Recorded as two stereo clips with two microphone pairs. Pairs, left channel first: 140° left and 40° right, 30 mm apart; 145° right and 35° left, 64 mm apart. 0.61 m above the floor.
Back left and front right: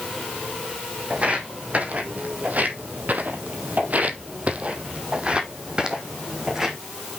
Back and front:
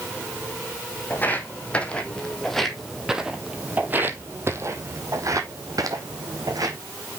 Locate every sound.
1.1 s footsteps: 85° right, 1.8 m; by 6.8 s 25° left, 2 m